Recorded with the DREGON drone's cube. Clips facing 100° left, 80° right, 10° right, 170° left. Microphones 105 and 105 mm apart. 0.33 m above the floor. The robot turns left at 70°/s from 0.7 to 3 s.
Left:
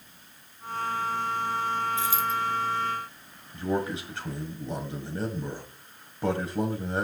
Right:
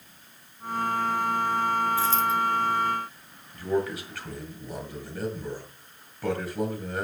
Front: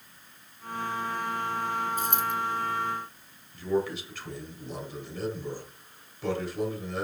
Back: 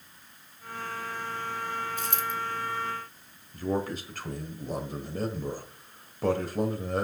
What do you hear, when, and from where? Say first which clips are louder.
2.0 s a dropped coin: right 3 dB, front 3 dB; 30° left, 1.4 m; by 2.3 s 5° left, 1.4 m
3.5 s a man speaking: right 1 dB, front 2 dB; 150° left, 1.6 m